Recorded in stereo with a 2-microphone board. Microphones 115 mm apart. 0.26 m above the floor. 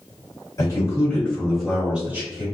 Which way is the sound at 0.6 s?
35° left (ahead or behind).